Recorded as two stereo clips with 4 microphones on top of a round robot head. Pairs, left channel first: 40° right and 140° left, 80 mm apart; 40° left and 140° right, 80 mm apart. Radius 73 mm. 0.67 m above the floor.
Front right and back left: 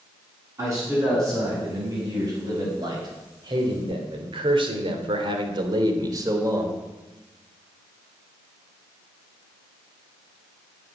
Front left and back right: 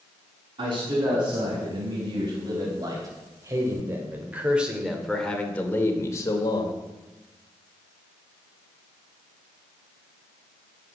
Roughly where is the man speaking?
Behind.